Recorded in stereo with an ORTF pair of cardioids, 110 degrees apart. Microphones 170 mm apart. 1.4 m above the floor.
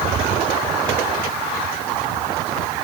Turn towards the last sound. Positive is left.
No sound to turn to.